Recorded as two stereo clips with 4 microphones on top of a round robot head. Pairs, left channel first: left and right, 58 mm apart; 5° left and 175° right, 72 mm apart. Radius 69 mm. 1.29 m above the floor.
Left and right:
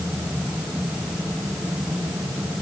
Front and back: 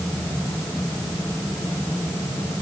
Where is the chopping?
No chopping in this recording.